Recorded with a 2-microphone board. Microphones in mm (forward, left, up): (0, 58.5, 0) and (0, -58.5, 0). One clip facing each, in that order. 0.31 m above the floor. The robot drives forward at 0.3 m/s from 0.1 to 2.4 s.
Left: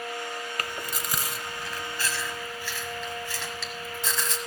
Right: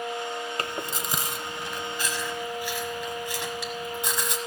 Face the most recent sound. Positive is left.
turn(degrees=-15)  # may be behind; listen again after turning